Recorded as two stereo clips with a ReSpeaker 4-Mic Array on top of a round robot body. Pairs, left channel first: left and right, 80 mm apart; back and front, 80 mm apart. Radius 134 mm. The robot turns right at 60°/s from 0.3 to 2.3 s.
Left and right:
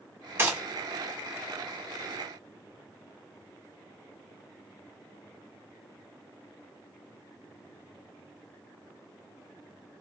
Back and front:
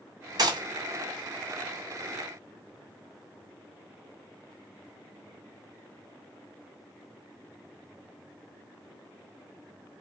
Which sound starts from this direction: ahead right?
A gunshot, at 0.4 s.